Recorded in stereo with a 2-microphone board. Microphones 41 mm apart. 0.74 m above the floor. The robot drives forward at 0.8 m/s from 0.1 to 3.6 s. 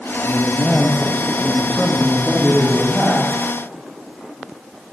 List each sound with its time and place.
0.2 s a woman speaking: 10° left (ahead or behind), 1.1 m; by 3.3 s 5° left (ahead or behind), 1.8 m